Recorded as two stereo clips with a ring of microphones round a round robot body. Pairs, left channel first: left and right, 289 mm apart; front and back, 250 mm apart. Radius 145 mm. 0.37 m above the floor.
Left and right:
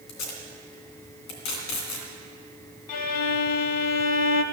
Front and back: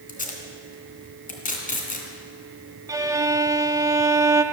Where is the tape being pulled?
55° left, 2.5 m.